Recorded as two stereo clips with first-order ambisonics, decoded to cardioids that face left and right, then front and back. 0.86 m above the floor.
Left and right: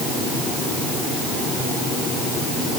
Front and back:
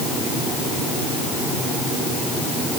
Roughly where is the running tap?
I don't hear a running tap.